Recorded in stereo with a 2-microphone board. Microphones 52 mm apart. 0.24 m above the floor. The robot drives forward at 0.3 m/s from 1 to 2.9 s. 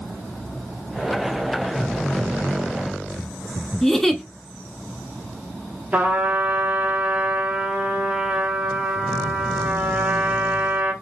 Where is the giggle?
10° left (ahead or behind), 0.6 m.